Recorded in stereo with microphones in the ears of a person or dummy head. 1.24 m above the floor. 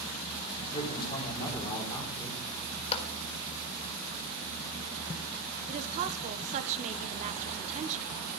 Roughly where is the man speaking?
Left.